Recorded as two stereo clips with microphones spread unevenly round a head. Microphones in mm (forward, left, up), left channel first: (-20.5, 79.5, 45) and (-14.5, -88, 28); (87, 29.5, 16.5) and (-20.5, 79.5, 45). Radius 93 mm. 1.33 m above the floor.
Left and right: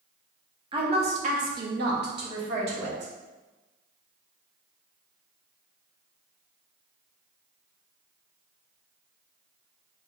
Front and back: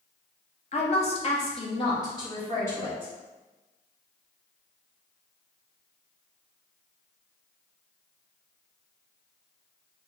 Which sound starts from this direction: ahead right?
A woman speaking, at 0.7 s.